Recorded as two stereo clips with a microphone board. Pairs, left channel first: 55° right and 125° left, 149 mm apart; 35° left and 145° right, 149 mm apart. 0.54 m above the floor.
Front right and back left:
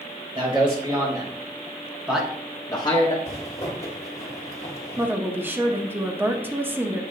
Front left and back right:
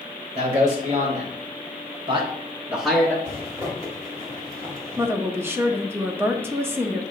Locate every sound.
0.3 s a man speaking: 175° left, 2.5 m; by 3.1 s 40° right, 1.1 m
3.2 s a zipper: 80° right, 1.2 m
5.0 s a woman speaking: 170° left, 0.6 m